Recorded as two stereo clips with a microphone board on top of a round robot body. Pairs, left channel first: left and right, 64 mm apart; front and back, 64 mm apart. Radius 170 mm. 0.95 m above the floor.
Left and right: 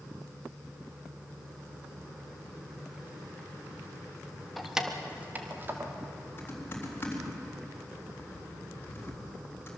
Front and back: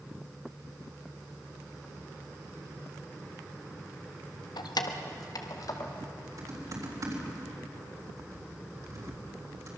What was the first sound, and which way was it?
Keys jangling, straight ahead.